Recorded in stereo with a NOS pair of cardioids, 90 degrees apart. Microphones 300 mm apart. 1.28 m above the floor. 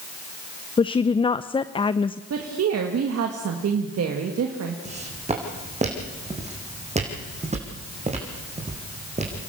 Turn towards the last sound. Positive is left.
turn(degrees=-25)